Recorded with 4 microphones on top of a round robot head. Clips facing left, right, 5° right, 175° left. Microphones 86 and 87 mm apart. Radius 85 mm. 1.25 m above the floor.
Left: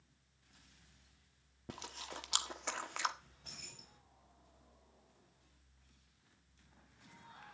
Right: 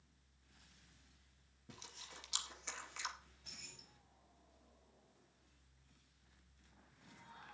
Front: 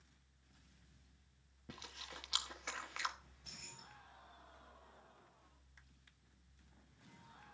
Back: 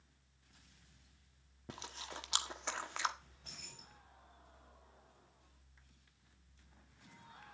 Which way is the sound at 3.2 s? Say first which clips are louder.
Left 4 dB, back 1 dB; 130° left.